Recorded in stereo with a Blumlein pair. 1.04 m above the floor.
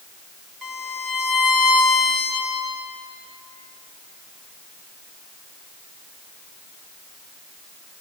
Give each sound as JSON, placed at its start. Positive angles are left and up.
{"t": 0.6, "sound": "a violin", "azimuth_deg": -25, "distance_m": 3.0}